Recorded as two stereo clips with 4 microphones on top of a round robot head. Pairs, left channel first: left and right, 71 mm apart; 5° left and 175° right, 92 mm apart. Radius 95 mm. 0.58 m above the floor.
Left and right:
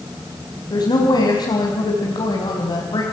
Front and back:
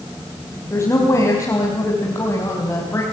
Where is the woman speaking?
65° left, 4 m.